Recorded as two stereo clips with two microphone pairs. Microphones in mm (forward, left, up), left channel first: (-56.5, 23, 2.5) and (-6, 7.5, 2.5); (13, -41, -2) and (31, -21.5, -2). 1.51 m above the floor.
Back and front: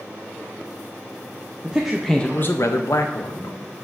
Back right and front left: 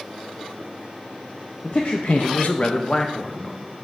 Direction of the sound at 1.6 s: 90° right.